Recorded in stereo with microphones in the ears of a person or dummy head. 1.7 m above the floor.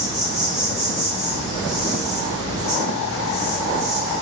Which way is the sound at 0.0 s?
40° left (ahead or behind).